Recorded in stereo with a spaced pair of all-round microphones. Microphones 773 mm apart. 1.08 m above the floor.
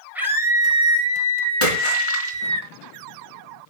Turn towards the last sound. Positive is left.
turn(degrees=40)  # may be behind; listen again after turning